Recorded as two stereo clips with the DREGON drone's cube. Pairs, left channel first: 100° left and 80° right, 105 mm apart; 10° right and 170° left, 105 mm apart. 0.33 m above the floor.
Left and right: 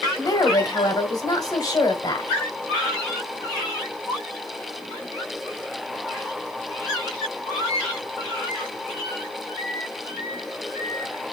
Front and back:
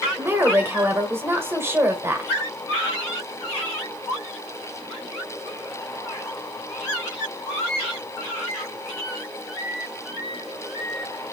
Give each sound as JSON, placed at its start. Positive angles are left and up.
{"t": 0.2, "sound": "a woman speaking", "azimuth_deg": 115, "distance_m": 1.6}